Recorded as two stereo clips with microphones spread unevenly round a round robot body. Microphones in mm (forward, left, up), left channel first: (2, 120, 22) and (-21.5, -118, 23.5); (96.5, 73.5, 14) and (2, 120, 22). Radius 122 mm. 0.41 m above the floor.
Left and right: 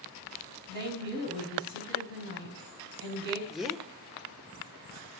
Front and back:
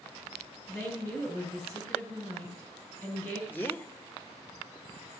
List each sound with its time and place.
0.7 s a woman speaking: 140° right, 3.5 m
3.5 s a man speaking: 10° right, 0.9 m